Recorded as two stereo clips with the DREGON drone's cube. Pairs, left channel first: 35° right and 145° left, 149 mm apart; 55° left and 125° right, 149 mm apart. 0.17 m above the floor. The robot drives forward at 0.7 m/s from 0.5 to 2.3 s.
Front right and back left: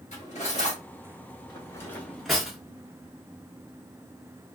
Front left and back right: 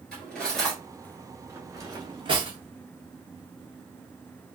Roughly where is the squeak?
No squeak in this recording.